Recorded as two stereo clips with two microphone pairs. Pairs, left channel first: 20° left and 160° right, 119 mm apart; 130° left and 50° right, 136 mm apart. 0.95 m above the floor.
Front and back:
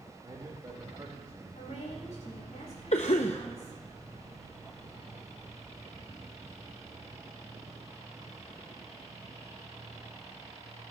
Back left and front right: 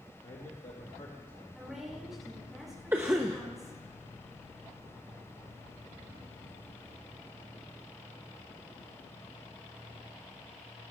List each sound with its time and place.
0.2 s a man speaking: 145° left, 1.8 m
1.6 s a woman speaking: 35° left, 5 m
2.9 s a cough: 25° left, 0.6 m